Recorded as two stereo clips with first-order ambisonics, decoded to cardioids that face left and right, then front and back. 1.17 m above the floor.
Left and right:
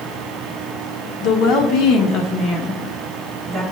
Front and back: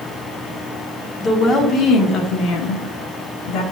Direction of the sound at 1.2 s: 70° left.